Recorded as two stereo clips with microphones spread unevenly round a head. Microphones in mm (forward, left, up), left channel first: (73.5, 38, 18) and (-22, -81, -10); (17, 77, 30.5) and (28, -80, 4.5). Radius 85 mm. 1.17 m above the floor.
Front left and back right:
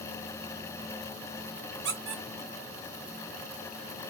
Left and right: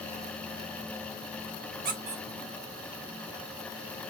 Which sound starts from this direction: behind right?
A squeak, at 1.9 s.